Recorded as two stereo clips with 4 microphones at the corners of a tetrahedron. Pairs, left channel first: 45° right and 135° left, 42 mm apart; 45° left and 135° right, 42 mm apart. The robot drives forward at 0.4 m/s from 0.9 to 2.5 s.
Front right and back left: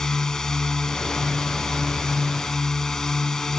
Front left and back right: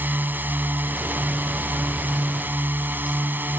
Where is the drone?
120° right.